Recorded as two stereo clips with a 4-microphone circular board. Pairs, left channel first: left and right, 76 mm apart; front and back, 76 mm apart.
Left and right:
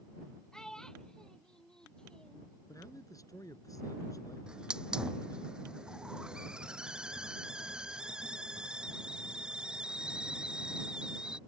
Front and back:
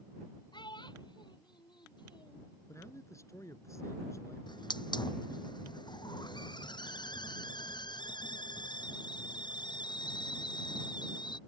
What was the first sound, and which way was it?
A child speaking, 10° left.